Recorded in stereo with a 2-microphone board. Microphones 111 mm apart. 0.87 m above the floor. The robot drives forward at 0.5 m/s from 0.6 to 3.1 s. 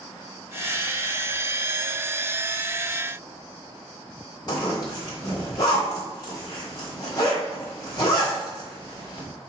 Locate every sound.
4.5 s a zipper: 35° left (ahead or behind), 3.5 m